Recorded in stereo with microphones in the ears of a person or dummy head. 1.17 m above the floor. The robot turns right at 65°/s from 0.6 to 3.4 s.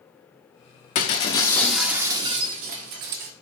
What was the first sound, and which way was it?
Breaking glass, 125° left.